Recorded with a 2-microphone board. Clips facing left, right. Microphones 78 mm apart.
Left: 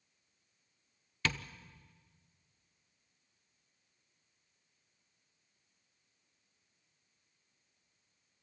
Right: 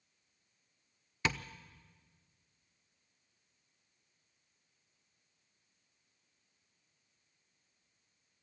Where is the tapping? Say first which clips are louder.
Right 1 dB; 20° right (ahead or behind), 0.7 m.